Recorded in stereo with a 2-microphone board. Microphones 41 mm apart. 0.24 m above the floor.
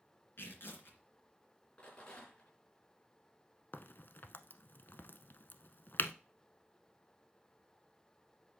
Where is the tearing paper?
60° left (ahead or behind), 2.5 m.